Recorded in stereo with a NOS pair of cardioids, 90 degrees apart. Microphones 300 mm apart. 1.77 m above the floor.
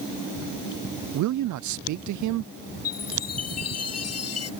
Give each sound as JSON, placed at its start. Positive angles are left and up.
{"t": 1.1, "sound": "a man speaking", "azimuth_deg": -65}
{"t": 2.9, "sound": "a chime", "azimuth_deg": 50}